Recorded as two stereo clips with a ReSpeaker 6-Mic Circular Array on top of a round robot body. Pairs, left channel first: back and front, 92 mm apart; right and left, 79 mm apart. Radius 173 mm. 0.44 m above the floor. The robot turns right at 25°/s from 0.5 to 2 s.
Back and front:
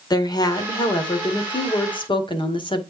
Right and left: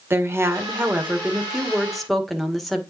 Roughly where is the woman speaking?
Behind left.